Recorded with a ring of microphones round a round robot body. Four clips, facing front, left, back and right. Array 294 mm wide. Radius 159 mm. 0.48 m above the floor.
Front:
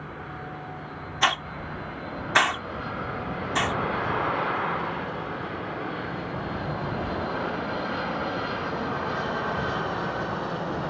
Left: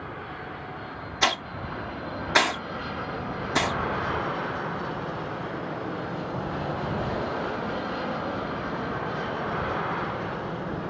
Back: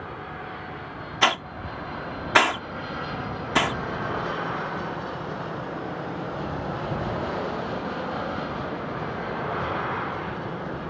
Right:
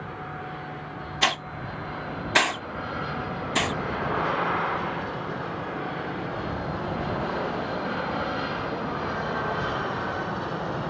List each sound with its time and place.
1.2 s a hiss: 165° left